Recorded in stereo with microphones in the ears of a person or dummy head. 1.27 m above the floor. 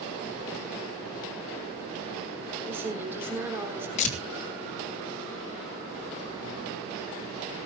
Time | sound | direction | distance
2.7 | a woman speaking | 15° right (ahead or behind) | 4 m
4.0 | tearing paper | 40° left (ahead or behind) | 3 m